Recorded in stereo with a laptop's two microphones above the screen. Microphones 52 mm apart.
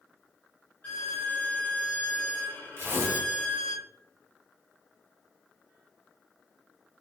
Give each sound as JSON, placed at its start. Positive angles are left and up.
{"t": 0.8, "sound": "a violin", "side_deg": 40, "distance_m": 0.7}
{"t": 2.8, "sound": "tearing paper", "side_deg": -45, "distance_m": 1.2}